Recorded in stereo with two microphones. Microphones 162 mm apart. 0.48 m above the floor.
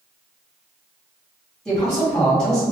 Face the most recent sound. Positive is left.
turn(degrees=5)  # may be behind; listen again after turning